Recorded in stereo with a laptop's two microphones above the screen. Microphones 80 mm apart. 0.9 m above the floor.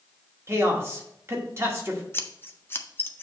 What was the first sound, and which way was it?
A man speaking, 30° right (ahead or behind).